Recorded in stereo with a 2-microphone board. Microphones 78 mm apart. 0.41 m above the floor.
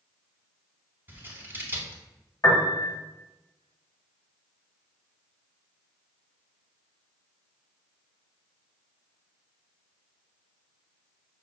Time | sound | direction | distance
1.1 | scissors | 25° right (ahead or behind) | 0.8 m
2.4 | a piano | 50° left (ahead or behind) | 0.9 m